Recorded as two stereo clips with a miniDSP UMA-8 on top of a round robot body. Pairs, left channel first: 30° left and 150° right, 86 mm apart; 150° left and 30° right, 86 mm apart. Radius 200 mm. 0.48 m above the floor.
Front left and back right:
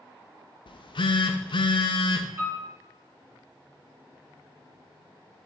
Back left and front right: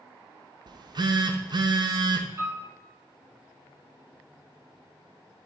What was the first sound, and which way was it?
A phone buzzing, 5° left.